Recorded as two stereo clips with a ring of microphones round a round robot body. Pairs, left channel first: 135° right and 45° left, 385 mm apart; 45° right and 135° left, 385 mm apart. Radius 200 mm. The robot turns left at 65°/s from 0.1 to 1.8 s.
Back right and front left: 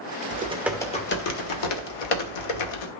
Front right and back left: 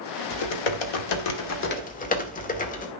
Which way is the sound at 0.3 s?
20° right.